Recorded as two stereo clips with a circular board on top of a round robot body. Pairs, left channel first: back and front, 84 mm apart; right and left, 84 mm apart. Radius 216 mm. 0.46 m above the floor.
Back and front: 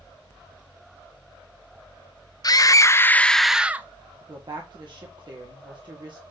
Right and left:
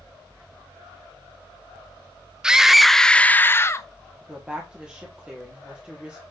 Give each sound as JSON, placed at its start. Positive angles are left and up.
{"t": 2.4, "sound": "a scream", "azimuth_deg": 170, "distance_m": 0.8}
{"t": 4.2, "sound": "a woman speaking", "azimuth_deg": 10, "distance_m": 1.6}